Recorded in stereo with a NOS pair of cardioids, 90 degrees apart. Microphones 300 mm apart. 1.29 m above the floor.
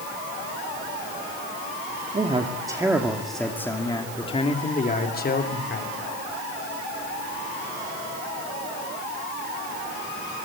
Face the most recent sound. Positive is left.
turn(degrees=40)